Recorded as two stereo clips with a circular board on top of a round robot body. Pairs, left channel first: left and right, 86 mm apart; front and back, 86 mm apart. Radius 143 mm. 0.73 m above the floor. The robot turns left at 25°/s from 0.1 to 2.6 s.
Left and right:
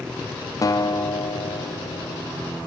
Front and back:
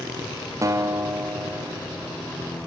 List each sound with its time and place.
0.6 s a guitar: 135° left, 1.6 m; by 2.2 s 90° left, 1.6 m